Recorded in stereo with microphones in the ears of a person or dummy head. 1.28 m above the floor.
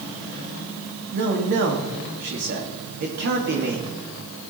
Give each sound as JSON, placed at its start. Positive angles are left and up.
{"t": 1.1, "sound": "a man speaking", "side_deg": -60, "distance_m": 2.0}